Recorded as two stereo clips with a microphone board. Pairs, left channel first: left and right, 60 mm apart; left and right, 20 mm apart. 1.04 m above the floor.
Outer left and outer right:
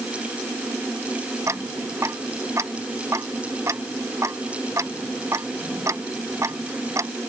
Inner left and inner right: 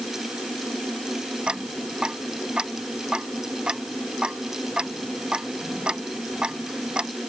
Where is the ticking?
55° right (ahead or behind).